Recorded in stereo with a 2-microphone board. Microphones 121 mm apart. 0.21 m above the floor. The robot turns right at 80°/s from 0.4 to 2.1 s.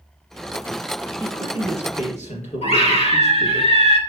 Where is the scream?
65° left (ahead or behind), 2.5 m.